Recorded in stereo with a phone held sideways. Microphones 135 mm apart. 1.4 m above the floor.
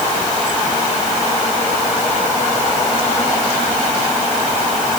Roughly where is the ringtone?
No ringtone in this recording.